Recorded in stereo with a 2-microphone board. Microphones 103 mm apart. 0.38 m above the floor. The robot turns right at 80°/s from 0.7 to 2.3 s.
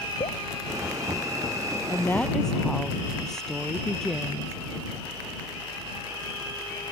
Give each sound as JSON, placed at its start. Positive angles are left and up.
{"t": 0.2, "sound": "dripping", "side_deg": 65}
{"t": 1.9, "sound": "a woman speaking", "azimuth_deg": 140}